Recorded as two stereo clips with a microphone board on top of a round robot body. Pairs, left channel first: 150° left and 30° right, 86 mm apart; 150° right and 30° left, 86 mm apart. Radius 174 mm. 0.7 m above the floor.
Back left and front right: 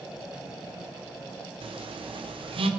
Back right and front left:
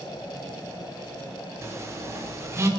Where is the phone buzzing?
30° right, 1.3 m.